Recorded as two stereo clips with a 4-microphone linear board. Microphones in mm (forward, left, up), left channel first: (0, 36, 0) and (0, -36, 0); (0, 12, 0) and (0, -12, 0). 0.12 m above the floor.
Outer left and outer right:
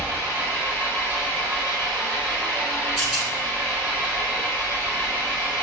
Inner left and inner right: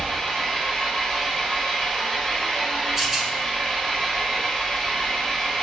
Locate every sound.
0.0 s an engine running: 30° left (ahead or behind), 1.4 m
3.0 s a rattle: centre (ahead or behind), 1.1 m